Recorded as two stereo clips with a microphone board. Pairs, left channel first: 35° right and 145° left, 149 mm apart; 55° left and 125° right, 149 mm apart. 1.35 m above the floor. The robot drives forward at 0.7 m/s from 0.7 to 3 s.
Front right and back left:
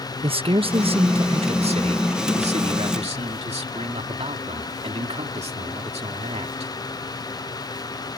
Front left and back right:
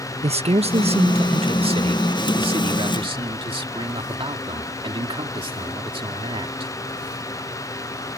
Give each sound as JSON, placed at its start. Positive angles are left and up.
{"t": 0.2, "sound": "a man speaking", "azimuth_deg": -165}